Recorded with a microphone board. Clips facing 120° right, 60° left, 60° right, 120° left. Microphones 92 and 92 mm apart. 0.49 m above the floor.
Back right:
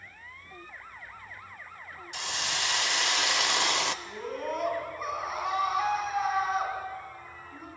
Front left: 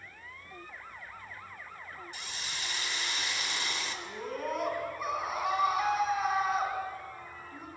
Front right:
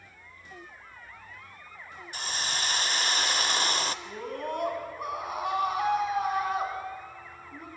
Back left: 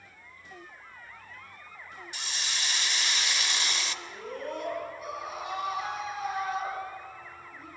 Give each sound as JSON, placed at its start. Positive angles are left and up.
{"t": 2.1, "sound": "a hiss", "azimuth_deg": -105, "distance_m": 0.6}
{"t": 4.0, "sound": "a scream", "azimuth_deg": -30, "distance_m": 5.0}